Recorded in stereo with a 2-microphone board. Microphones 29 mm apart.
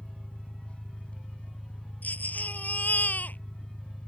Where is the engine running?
45° left (ahead or behind).